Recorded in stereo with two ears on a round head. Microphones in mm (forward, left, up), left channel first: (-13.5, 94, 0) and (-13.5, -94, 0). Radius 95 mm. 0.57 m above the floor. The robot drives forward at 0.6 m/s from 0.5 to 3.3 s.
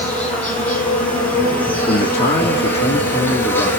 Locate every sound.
0.0 s an insect: 5° left (ahead or behind), 4.5 m; by 3.8 s 10° left (ahead or behind), 3 m
1.9 s a man speaking: 30° left (ahead or behind), 1.4 m